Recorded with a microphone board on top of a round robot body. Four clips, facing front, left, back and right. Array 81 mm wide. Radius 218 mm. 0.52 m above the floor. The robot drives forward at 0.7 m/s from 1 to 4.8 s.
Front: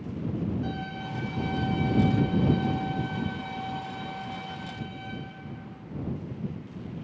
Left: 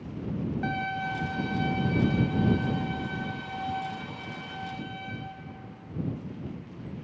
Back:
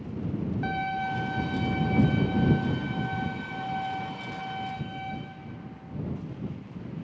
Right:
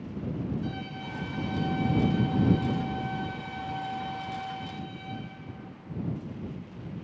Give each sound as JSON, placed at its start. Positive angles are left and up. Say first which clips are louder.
{"t": 0.6, "sound": "a violin", "louder": "left 6 dB, back 5 dB", "azimuth_deg": 125, "distance_m": 0.6}